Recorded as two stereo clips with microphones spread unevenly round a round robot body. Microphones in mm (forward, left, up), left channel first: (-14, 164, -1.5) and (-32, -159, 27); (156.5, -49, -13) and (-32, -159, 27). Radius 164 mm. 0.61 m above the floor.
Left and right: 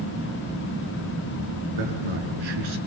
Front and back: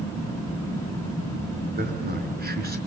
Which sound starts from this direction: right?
A man speaking, at 1.7 s.